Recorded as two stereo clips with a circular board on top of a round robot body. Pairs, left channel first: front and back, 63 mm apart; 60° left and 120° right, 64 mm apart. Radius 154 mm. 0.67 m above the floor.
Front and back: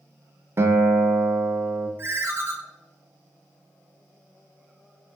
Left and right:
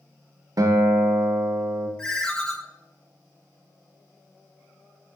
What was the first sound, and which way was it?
A guitar, 135° right.